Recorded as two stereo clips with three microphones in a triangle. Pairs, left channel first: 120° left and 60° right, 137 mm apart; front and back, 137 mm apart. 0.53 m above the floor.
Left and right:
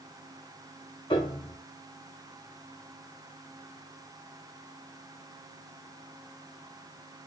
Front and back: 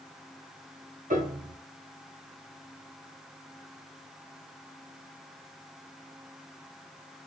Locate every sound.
1.1 s a piano: 175° left, 0.9 m